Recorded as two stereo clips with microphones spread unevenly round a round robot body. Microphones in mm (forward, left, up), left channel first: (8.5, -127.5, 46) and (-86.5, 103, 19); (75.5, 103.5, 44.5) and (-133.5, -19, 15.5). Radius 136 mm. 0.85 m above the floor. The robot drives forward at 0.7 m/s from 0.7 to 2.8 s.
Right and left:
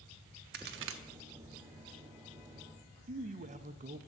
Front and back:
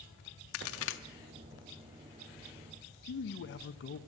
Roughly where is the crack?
Ahead left.